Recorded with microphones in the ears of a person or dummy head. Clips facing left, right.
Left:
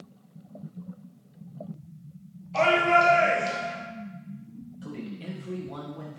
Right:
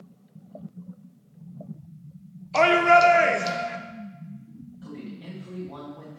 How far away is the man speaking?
About 1.2 m.